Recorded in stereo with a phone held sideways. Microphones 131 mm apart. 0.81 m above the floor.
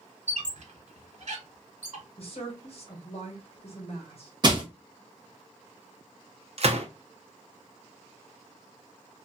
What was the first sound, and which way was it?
A squeak, 60° right (ahead or behind).